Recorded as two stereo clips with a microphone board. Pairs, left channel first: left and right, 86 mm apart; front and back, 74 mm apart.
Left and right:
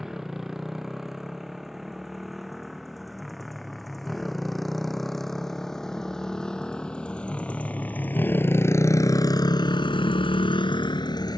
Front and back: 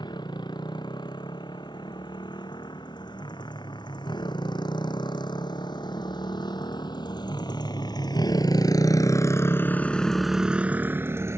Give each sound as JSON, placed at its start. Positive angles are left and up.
{"t": 0.0, "sound": "a motorcycle", "azimuth_deg": -5}